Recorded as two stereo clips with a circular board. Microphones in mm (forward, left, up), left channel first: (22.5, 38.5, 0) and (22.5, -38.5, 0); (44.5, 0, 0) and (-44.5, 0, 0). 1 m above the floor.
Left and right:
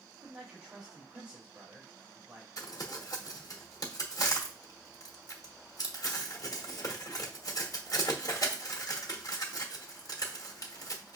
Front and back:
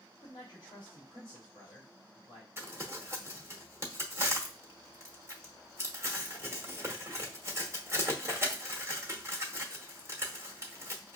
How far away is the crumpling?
About 1.1 m.